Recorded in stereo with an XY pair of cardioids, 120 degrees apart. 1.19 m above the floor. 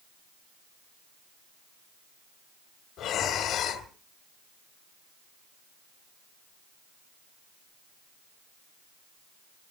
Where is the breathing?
70° left, 2 m.